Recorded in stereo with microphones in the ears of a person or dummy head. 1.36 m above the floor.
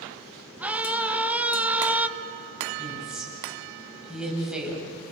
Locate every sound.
0.6 s a scream: 5° right (ahead or behind), 2 m
2.8 s a woman speaking: 5° right (ahead or behind), 8 m